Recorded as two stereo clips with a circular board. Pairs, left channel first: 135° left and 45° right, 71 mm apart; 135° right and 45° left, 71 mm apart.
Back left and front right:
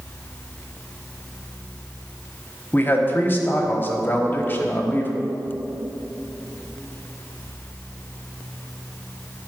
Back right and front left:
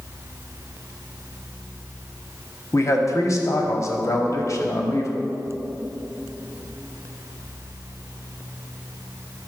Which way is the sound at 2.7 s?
165° right.